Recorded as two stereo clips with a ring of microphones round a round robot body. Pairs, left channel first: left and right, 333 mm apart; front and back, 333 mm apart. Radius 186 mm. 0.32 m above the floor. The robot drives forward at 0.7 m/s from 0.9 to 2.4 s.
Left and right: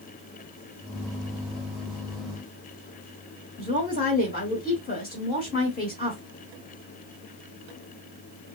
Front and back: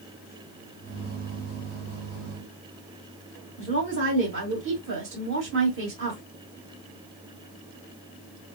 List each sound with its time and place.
3.6 s a woman speaking: 145° left, 1.5 m